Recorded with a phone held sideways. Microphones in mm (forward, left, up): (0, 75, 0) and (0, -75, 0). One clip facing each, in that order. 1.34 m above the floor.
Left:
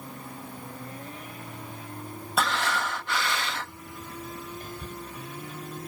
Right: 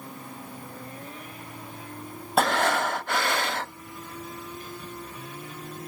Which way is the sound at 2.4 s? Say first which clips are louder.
Right 5 dB; 50° right (ahead or behind).